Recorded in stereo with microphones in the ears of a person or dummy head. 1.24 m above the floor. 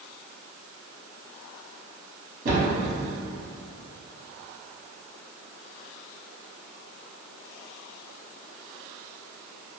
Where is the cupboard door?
50° right (ahead or behind), 0.9 m.